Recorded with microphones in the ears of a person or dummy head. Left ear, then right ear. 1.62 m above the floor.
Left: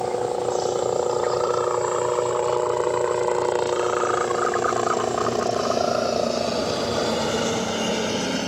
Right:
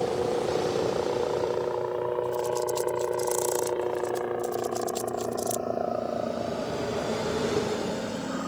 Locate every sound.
0.0 s a helicopter: 75° left (ahead or behind); by 8.5 s 65° left (ahead or behind)